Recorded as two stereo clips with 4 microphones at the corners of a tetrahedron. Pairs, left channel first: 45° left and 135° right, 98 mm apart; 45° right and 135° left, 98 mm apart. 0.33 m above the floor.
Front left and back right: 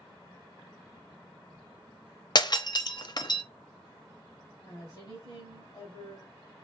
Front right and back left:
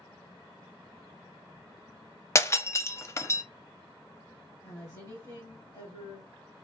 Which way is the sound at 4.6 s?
Straight ahead.